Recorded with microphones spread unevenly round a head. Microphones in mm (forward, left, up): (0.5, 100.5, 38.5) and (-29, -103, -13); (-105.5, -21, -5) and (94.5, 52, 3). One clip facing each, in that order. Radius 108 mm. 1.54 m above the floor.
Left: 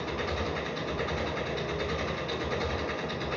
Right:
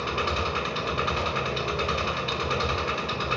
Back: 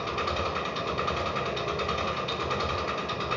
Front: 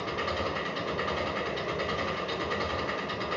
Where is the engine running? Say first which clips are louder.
Right 2 dB, back 1 dB; 105° right, 6.5 m.